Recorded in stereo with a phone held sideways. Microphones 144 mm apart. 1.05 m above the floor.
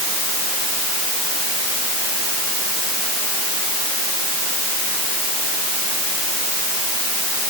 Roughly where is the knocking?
No knocking in this recording.